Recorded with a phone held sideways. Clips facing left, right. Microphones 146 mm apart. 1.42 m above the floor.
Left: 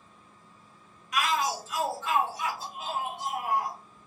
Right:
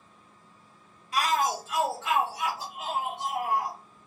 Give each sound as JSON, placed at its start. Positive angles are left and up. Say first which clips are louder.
{"t": 1.1, "sound": "a shout", "louder": "right 2 dB", "side_deg": -30, "distance_m": 0.6}